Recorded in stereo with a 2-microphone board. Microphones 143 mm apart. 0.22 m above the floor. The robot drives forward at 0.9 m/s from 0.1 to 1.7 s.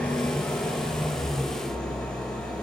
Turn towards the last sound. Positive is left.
turn(degrees=5)  # may be behind; listen again after turning